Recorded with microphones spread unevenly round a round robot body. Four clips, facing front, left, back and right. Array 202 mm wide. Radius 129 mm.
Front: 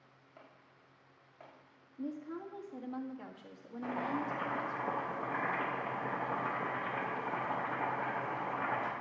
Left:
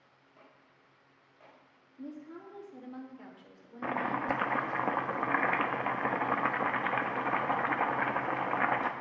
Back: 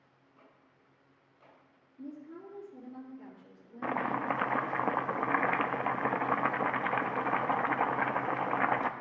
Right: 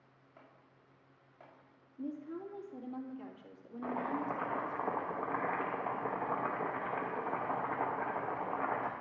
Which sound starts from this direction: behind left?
Chopping, at 3.8 s.